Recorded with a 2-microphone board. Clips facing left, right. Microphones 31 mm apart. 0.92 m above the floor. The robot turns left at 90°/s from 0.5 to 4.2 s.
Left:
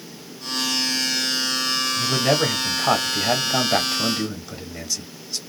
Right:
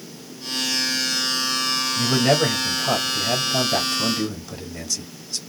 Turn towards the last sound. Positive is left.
turn(degrees=5)